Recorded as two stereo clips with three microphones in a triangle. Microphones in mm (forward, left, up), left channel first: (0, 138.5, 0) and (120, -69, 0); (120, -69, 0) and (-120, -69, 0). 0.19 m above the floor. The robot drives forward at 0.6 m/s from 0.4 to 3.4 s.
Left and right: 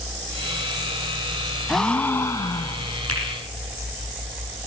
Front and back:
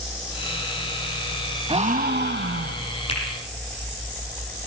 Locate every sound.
1.7 s a gasp: 150° right, 0.6 m; by 3.0 s 170° right, 1.2 m
3.1 s a finger snap: 65° right, 7 m